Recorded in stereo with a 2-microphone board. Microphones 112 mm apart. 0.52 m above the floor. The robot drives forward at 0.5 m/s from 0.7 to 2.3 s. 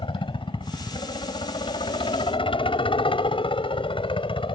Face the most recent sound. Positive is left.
turn(degrees=50)  # may be behind; listen again after turning